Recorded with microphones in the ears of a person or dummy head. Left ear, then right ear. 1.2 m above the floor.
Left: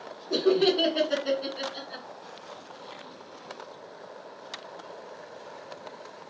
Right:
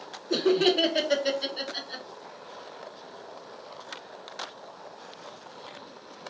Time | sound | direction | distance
0.3 | laughter | 40° right (ahead or behind) | 0.9 m